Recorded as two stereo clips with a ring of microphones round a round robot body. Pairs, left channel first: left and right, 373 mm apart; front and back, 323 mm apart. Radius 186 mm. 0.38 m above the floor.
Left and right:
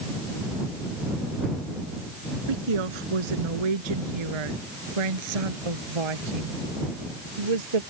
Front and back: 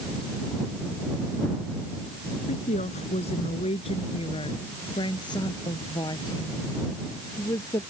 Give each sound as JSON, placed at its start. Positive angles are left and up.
{"t": 2.5, "sound": "a woman speaking", "azimuth_deg": -75}